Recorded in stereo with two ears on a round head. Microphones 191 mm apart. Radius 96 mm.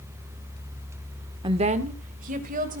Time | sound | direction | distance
1.4 | a woman speaking | 25° right (ahead or behind) | 1.0 m